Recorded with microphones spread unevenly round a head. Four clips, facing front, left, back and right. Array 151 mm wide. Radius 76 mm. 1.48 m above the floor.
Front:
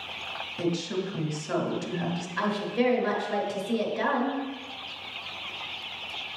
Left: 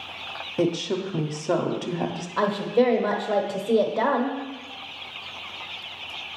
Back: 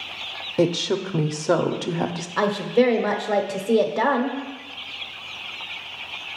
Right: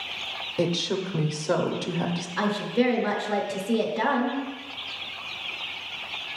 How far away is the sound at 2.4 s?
About 0.8 m.